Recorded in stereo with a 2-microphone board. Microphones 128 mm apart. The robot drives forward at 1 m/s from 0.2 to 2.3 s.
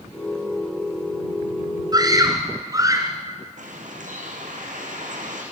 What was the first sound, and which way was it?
A scream, 30° right (ahead or behind).